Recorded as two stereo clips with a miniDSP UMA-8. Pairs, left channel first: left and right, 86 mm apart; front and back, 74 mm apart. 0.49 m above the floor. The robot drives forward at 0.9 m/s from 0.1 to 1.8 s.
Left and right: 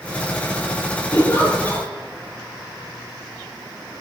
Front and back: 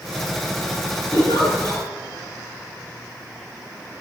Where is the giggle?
150° left, 5.5 m; by 1.9 s 155° left, 6 m.